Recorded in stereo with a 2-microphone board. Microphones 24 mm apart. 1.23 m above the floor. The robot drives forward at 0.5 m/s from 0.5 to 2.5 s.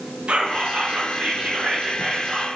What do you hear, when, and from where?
0.3 s whispering: 55° right (ahead or behind), 0.7 m; by 2.5 s 45° right (ahead or behind), 0.8 m